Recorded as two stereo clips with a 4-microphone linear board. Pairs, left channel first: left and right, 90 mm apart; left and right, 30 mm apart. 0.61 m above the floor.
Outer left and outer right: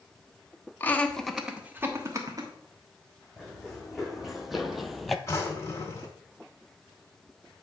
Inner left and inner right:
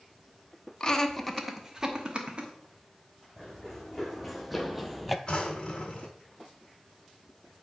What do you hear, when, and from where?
0.8 s laughter: 25° left (ahead or behind), 1.0 m; by 2.5 s 45° right (ahead or behind), 1.3 m
3.4 s running footsteps: 5° right (ahead or behind), 1.8 m; by 5.2 s centre (ahead or behind), 0.6 m
5.3 s a drawer: 30° left (ahead or behind), 1.7 m